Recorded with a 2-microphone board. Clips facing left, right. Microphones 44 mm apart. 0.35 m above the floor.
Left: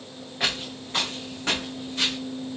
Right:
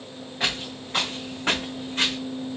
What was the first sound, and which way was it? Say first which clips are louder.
Footsteps: even; 5° left (ahead or behind).